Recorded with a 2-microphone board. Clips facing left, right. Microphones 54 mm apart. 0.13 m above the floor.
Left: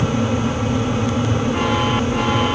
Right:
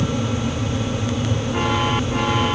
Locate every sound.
Only background noise.